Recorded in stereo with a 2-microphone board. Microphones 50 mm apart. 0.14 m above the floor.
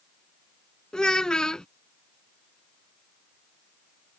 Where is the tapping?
I don't hear tapping.